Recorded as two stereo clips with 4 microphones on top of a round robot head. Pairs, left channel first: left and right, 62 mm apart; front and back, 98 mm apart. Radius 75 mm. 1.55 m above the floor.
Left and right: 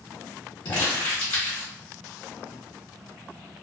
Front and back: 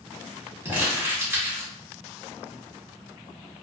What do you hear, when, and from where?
0.7 s crumpling: 120° left, 1.0 m